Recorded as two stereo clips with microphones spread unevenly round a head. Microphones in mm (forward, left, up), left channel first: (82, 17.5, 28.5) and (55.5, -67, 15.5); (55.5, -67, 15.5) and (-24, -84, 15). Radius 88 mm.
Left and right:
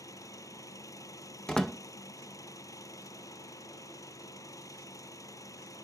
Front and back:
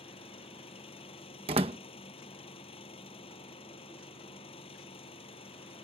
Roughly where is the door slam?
Behind left.